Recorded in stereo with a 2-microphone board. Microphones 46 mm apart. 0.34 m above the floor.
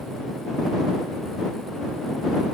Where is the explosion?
I don't hear an explosion.